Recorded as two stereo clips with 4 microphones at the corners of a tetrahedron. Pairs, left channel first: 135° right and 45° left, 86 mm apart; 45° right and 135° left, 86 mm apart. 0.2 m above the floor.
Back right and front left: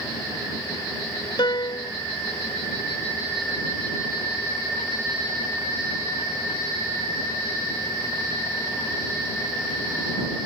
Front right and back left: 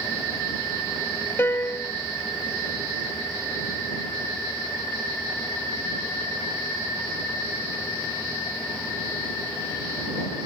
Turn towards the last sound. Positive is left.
turn(degrees=-110)